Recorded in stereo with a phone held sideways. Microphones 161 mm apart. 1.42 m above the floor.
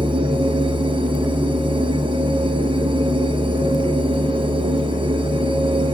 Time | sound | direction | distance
0.0 | a machine running | 30° right (ahead or behind) | 0.8 m